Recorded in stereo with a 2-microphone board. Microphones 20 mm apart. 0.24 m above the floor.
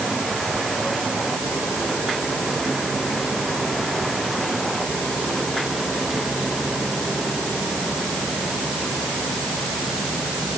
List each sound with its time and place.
Only background noise.